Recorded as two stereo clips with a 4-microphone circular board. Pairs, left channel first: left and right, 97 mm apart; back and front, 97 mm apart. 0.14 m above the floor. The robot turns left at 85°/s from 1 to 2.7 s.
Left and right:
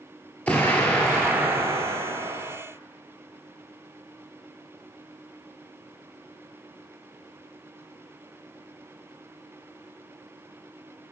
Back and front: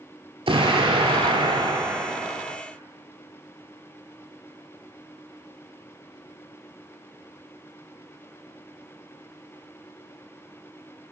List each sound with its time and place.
0.5 s an explosion: 20° left, 1.0 m; by 2.6 s 115° right, 1.0 m